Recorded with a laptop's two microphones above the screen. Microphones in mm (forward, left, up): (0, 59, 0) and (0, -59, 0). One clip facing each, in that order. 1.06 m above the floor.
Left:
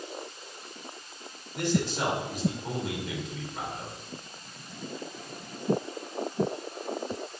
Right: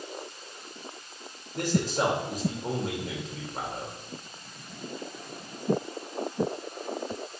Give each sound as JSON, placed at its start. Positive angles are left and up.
{"t": 1.6, "sound": "a man speaking", "side_deg": -40, "distance_m": 2.0}